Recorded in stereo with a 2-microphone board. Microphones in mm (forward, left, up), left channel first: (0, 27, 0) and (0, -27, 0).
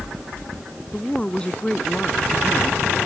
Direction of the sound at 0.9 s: 20° left (ahead or behind).